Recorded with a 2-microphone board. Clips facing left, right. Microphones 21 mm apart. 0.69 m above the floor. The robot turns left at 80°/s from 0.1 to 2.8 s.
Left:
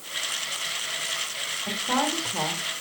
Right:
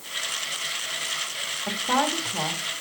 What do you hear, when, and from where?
1.7 s a woman speaking: 40° right (ahead or behind), 2.0 m; by 2.6 s 35° left (ahead or behind), 2.0 m